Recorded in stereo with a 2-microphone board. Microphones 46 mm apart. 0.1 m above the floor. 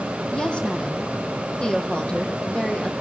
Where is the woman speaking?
15° left (ahead or behind), 4 m.